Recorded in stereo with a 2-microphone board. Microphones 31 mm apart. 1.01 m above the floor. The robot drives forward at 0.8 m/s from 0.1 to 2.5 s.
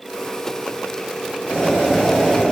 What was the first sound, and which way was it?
Boiling, 35° left (ahead or behind).